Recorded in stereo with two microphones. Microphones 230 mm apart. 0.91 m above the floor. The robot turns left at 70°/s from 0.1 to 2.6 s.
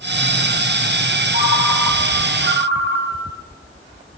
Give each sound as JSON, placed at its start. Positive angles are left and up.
{"t": 1.3, "sound": "a ringtone", "azimuth_deg": -35, "distance_m": 2.5}